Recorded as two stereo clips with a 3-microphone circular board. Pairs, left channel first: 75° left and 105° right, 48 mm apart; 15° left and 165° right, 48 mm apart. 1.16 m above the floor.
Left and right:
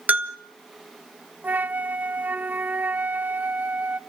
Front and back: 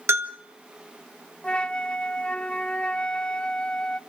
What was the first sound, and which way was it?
A bell, 155° right.